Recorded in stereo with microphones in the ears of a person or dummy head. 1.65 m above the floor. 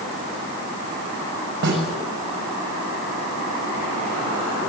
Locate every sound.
1.6 s a snare drum: 60° right (ahead or behind), 6 m